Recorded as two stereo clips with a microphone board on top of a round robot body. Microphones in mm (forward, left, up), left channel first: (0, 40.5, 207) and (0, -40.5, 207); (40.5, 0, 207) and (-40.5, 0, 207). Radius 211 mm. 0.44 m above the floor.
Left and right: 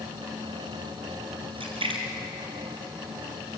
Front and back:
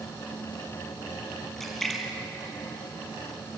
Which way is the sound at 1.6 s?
85° right.